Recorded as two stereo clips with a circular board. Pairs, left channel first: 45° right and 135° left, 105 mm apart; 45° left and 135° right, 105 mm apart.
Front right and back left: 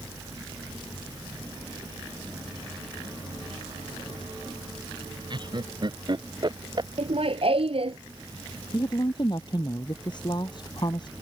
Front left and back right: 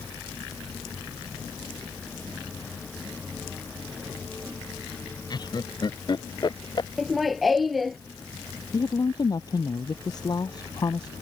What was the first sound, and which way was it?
Laughter, 90° left.